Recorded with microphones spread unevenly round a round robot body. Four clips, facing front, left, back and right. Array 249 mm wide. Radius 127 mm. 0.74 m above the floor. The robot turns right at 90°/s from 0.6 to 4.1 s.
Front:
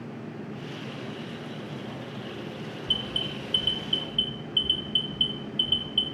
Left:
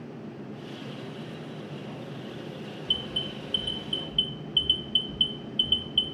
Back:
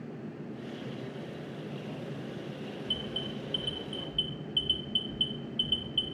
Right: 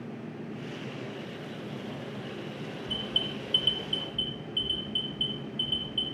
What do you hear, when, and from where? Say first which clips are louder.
2.9 s an alarm: even, front 3 dB; 5° right, 1.1 m; by 6.0 s 105° left, 1.1 m